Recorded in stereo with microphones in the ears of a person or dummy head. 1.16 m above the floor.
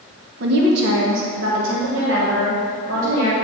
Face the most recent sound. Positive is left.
turn(degrees=-80)